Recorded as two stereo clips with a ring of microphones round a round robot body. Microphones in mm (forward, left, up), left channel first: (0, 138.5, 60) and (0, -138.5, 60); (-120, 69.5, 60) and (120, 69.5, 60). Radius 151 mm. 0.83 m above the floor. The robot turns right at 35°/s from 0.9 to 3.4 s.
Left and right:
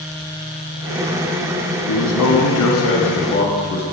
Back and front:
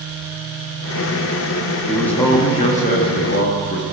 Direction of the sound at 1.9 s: 90° left.